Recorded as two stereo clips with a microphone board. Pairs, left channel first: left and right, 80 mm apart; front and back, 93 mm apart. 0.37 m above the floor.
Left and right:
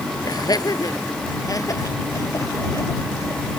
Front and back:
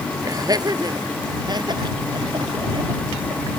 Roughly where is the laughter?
Behind left.